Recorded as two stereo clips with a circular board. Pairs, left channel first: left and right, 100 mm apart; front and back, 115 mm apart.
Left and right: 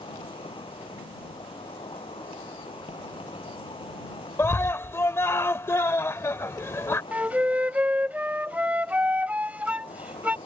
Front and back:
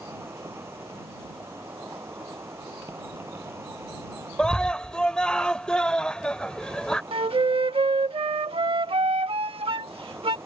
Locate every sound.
0.0 s an insect: 110° left
4.4 s a scream: 75° left
7.1 s a flute: 160° right